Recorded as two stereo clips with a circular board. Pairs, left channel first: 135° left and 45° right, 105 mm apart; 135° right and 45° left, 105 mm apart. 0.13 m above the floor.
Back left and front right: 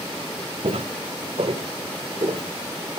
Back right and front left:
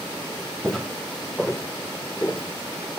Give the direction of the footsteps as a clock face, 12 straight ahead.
2 o'clock.